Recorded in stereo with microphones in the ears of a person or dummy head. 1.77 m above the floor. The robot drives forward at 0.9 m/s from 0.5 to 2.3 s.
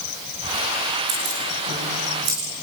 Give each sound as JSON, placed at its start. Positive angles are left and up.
{"t": 1.1, "sound": "keys jangling", "side_deg": -60, "distance_m": 6.0}